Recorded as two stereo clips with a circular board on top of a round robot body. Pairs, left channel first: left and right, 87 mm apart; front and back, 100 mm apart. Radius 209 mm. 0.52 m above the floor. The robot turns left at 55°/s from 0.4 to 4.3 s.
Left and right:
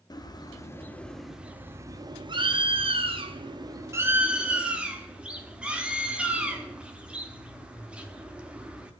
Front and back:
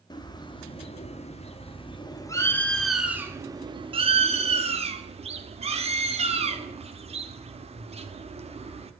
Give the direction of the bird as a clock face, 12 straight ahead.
10 o'clock.